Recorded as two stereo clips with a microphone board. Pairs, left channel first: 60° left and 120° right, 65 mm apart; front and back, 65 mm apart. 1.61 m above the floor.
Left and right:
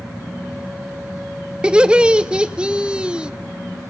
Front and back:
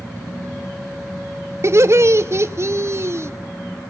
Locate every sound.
1.6 s laughter: 170° left, 0.6 m